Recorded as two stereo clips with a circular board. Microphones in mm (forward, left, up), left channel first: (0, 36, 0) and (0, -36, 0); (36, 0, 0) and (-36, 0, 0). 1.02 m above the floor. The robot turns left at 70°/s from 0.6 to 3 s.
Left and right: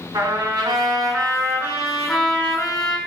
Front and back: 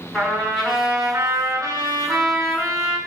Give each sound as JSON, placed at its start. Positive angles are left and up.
{"t": 0.1, "sound": "a trumpet", "azimuth_deg": -85, "distance_m": 4.0}